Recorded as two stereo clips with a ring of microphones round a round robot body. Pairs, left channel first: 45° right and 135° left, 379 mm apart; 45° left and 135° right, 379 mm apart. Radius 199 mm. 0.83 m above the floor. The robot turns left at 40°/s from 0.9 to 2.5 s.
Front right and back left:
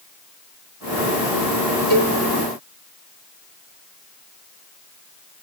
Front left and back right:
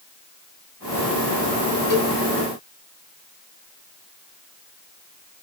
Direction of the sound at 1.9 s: 45° left.